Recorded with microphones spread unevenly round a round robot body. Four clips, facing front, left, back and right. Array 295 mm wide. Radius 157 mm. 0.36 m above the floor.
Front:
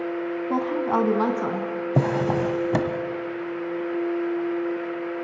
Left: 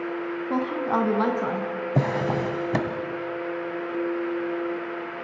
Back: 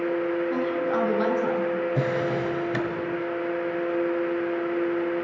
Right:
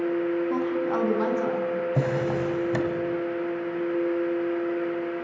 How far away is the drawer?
About 1.7 m.